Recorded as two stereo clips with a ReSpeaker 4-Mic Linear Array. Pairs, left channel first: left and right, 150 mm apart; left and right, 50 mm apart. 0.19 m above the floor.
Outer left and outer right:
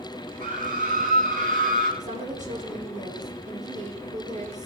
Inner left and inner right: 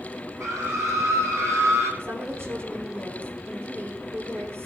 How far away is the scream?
About 8 m.